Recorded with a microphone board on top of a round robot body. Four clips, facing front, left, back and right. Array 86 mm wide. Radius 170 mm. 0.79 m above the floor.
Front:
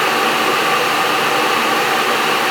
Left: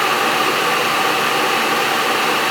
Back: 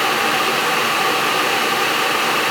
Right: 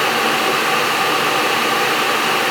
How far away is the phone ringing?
No phone ringing in this recording.